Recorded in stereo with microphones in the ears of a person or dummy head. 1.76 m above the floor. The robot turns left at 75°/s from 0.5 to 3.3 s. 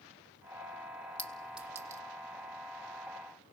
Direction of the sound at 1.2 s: 10° left (ahead or behind).